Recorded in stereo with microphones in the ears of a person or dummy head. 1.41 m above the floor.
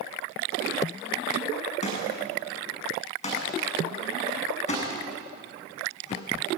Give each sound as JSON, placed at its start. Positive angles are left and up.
{"t": 1.8, "sound": "a thud", "side_deg": 35, "distance_m": 7.0}